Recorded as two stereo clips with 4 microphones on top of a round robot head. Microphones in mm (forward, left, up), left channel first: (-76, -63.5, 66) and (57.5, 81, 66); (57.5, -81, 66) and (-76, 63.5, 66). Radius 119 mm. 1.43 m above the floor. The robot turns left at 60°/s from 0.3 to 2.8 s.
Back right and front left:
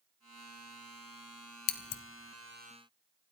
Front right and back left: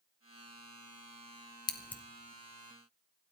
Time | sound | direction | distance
1.7 | scissors | 115° right | 0.7 m